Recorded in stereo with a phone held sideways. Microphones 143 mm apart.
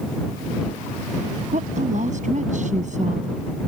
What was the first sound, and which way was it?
A woman speaking, 60° right (ahead or behind).